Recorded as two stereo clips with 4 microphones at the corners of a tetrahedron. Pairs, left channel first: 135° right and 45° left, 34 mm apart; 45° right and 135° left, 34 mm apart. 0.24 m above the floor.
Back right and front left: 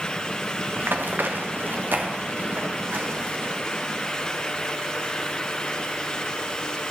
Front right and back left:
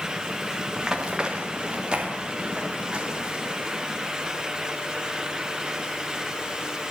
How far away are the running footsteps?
About 2.5 m.